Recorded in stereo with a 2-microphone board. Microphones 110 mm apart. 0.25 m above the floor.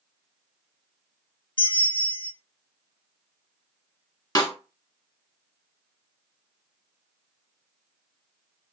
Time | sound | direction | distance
1.6 | a bell | 50° left (ahead or behind) | 1.2 m
4.3 | a snare drum | 35° left (ahead or behind) | 1.3 m